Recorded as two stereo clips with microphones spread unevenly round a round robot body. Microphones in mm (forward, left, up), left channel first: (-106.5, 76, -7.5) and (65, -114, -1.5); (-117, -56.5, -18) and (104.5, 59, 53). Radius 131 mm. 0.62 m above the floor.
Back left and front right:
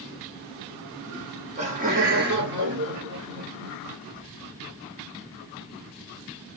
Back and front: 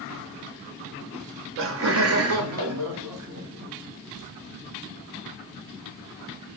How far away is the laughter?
About 0.9 m.